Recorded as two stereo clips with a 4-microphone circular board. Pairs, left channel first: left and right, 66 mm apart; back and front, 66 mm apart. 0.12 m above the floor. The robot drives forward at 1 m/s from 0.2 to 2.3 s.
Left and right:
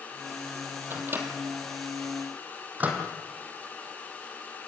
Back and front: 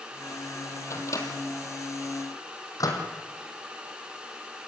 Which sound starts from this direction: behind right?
A microwave, at 0.9 s.